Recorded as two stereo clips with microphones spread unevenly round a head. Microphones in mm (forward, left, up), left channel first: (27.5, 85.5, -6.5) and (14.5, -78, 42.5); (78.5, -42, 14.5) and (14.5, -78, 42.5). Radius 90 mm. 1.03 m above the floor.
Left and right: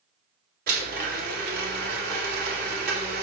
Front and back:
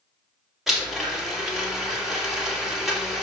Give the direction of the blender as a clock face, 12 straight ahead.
2 o'clock.